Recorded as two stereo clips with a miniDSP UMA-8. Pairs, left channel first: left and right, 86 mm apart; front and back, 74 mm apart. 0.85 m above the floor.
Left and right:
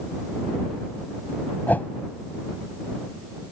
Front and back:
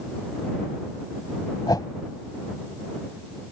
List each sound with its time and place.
1.7 s a whoosh: 20° left